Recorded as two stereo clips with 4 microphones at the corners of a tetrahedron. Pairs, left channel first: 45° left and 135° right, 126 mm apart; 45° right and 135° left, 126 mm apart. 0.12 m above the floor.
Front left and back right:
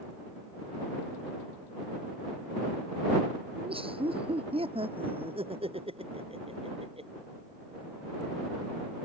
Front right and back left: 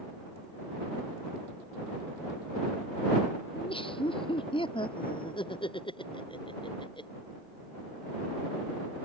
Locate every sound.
3.5 s laughter: 90° right; by 7.1 s 95° right